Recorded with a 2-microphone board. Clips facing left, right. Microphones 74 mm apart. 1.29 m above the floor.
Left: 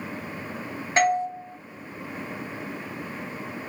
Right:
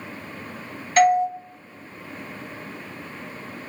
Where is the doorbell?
25° left (ahead or behind), 1.1 m.